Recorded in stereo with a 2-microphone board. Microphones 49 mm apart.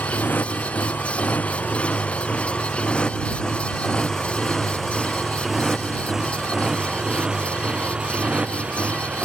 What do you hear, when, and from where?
0.0 s a motorcycle: 40° left (ahead or behind); by 9.2 s 30° right (ahead or behind)